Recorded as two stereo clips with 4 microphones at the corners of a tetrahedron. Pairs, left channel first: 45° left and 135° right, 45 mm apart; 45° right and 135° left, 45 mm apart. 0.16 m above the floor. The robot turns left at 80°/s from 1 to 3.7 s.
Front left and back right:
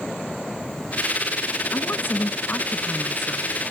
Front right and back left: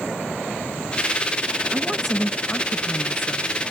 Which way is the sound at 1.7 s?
75° left.